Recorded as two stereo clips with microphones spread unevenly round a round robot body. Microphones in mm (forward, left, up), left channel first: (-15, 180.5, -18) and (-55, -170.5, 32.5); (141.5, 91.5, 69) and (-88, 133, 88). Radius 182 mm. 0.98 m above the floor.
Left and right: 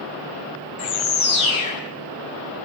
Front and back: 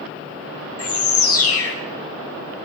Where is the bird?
10° left, 6.5 m.